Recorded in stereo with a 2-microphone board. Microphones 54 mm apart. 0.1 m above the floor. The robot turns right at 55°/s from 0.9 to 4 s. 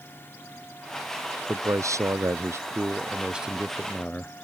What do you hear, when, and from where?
1.5 s a man speaking: 120° right; by 4.4 s 20° left